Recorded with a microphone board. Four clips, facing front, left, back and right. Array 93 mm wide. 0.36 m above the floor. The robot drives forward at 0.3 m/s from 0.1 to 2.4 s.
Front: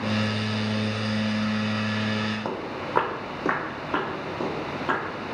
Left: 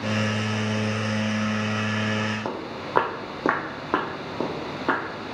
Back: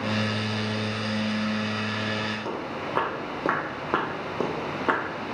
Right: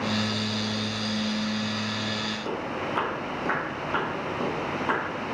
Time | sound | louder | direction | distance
2.5 | footsteps | right 1 dB, even | 60° left | 0.7 m